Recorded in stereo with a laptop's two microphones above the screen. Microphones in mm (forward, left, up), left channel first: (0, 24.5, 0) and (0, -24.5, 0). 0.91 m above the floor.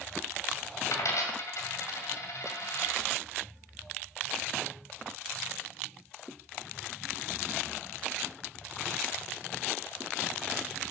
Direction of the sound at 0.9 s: 70° left (ahead or behind).